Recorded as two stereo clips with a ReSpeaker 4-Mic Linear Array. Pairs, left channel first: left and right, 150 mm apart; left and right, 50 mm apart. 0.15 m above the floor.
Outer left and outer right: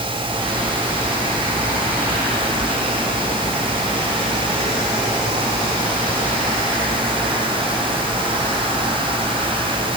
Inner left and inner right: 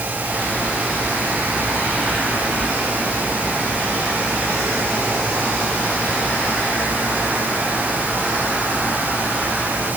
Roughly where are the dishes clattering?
No dishes clattering in this recording.